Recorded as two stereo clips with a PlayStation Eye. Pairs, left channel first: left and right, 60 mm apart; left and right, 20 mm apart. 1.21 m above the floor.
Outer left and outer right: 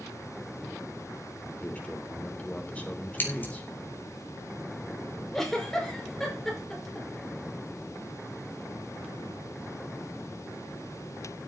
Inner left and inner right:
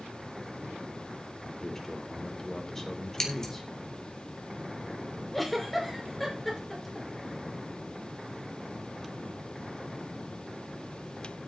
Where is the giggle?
5° left (ahead or behind), 5.5 m.